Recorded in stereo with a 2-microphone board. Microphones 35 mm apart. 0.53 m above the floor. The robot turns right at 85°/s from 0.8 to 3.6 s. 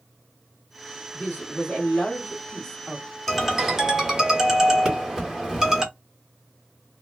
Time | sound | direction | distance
1.1 | a woman speaking | 50° left | 1.3 m
3.3 | a ringtone | 5° left (ahead or behind) | 0.9 m
4.8 | a pop | 25° right (ahead or behind) | 1.8 m